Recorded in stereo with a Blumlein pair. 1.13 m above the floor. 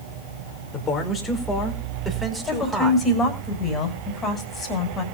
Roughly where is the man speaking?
Ahead left.